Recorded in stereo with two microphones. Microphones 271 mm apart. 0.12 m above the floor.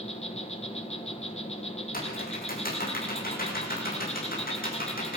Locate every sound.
0.0 s an insect: 20° left (ahead or behind), 2.5 m
1.9 s typing on a keyboard: 35° left (ahead or behind), 6.5 m